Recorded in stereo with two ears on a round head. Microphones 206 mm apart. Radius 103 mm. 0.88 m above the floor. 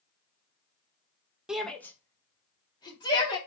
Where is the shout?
5° right (ahead or behind), 0.8 m; by 3.4 s 20° left (ahead or behind), 2.5 m.